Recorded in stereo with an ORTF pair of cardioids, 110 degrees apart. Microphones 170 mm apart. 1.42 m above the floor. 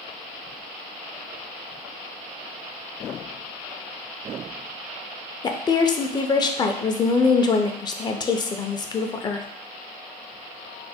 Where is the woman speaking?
25° left, 0.5 m.